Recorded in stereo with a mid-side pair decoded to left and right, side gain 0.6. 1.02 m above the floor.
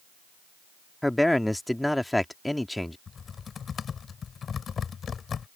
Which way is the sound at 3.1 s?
35° left.